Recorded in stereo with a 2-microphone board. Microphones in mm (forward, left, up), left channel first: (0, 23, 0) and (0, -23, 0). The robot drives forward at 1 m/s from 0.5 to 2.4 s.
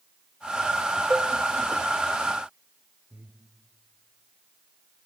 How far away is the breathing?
About 3 m.